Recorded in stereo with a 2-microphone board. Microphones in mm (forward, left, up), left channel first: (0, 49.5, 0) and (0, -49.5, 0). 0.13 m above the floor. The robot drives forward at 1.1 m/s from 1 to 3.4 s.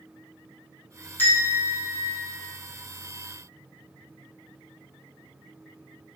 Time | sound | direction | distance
1.2 | a bell | 20° left (ahead or behind) | 3 m